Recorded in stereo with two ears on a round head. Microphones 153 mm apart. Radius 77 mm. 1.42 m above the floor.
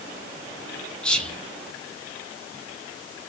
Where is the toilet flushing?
No toilet flushing in this recording.